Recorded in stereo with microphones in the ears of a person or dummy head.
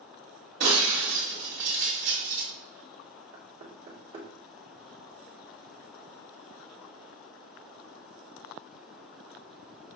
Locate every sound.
0.6 s breaking glass: 50° right (ahead or behind), 1.4 m
3.3 s knocking: 45° right (ahead or behind), 1.1 m